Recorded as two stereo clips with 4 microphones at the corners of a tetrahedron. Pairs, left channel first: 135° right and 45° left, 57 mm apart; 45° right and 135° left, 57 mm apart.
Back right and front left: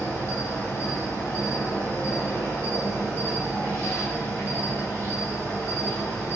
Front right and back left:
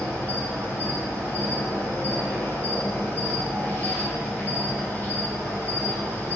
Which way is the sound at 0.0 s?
90° right.